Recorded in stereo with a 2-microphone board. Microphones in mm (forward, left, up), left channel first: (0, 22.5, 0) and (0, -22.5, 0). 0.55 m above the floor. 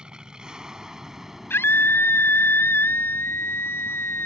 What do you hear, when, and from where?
0.0 s an aircraft: 20° right (ahead or behind); by 4.3 s 15° left (ahead or behind)
1.5 s a scream: 65° left (ahead or behind)